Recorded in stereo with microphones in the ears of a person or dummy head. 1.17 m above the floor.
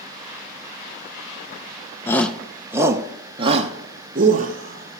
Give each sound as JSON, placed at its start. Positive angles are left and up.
{"t": 2.1, "sound": "a shout", "side_deg": 10, "distance_m": 0.9}